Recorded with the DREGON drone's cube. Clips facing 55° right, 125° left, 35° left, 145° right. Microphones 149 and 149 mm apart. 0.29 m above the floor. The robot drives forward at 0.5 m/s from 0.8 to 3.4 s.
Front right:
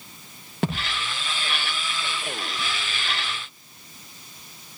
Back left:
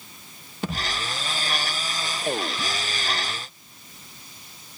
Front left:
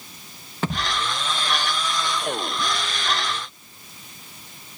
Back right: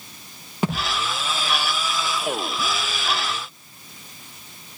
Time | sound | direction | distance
0.6 | a thud | 70° right | 7.5 m